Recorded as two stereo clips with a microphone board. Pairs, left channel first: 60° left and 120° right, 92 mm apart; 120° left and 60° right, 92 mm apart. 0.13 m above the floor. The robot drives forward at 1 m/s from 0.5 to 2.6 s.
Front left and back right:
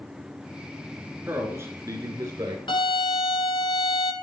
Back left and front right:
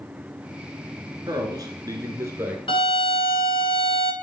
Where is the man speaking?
60° right, 2.0 m; by 2.6 s 115° right, 2.0 m.